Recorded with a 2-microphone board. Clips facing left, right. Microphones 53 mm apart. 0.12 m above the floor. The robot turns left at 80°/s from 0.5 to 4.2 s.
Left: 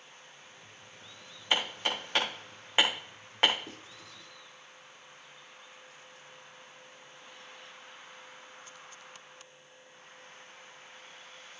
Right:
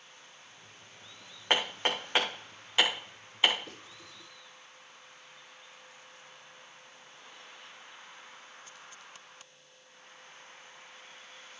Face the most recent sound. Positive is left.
turn(degrees=-15)  # may be behind; listen again after turning